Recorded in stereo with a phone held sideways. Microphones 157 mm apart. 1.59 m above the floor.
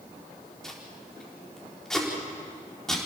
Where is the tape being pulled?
5° left (ahead or behind), 4 m.